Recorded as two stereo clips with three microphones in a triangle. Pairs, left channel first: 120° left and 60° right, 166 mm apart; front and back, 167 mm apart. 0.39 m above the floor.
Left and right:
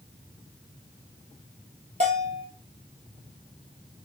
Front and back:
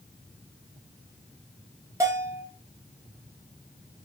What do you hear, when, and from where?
2.0 s a bell: 105° right, 1.7 m